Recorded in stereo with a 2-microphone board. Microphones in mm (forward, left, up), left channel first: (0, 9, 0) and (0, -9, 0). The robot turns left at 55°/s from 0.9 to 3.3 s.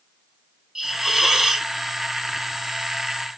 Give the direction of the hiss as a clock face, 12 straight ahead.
3 o'clock.